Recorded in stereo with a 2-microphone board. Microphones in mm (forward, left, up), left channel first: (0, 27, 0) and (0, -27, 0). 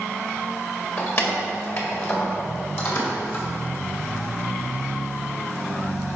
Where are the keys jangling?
45° left (ahead or behind), 1.6 m; by 3.5 s 55° left (ahead or behind), 3 m.